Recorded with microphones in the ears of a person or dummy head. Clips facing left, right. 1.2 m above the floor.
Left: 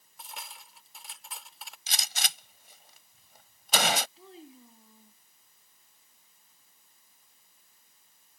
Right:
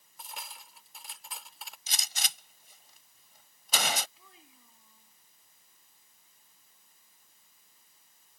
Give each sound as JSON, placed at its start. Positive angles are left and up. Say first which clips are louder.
{"t": 0.2, "sound": "cutlery clinking", "louder": "even", "side_deg": 0}
{"t": 1.9, "sound": "a gunshot", "louder": "left 4 dB", "side_deg": 60}
{"t": 4.2, "sound": "a child speaking", "louder": "left 13 dB", "side_deg": 30}